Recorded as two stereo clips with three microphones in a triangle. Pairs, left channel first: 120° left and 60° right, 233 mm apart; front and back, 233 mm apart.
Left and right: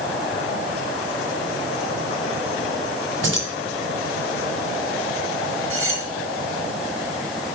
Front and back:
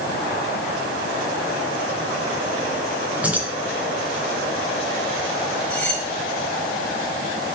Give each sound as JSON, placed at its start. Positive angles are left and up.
{"t": 3.2, "sound": "keys jangling", "azimuth_deg": -95, "distance_m": 3.0}
{"t": 5.7, "sound": "cutlery clinking", "azimuth_deg": -85, "distance_m": 3.0}